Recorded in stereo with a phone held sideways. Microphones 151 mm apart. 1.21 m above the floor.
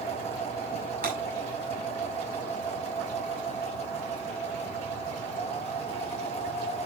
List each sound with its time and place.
0.0 s a machine running: 45° left (ahead or behind), 2.5 m
1.0 s breaking glass: 75° right (ahead or behind), 5.5 m